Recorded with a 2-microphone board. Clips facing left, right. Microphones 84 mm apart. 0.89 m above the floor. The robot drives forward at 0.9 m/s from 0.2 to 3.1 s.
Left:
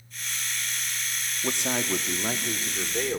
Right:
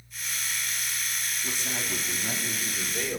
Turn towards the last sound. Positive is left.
turn(degrees=30)  # may be behind; listen again after turning